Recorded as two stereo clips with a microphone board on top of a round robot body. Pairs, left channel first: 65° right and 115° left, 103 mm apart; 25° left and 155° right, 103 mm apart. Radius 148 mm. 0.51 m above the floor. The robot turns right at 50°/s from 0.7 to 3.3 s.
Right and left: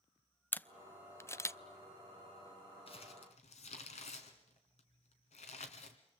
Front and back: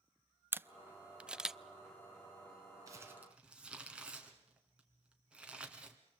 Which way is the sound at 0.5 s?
120° right.